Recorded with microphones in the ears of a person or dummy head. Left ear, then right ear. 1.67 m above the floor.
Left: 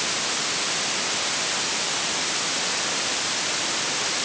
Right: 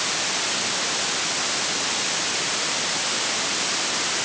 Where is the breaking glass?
No breaking glass in this recording.